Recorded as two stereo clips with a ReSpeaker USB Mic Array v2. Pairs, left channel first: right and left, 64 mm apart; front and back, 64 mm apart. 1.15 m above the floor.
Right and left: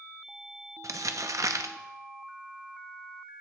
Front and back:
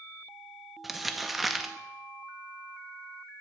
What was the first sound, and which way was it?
Crumpling, 95° left.